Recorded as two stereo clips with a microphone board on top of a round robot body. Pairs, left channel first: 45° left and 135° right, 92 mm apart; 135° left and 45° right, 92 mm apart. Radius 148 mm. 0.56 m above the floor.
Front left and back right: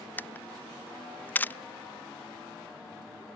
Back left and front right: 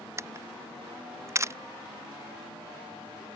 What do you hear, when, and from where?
0.2 s a camera shutter: 10° right